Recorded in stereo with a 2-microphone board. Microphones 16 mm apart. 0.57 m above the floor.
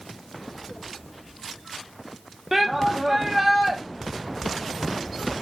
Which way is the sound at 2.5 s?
15° right (ahead or behind).